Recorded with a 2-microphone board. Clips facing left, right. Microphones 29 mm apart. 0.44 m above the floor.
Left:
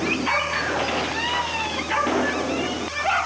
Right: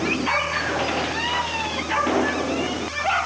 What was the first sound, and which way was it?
Only background noise.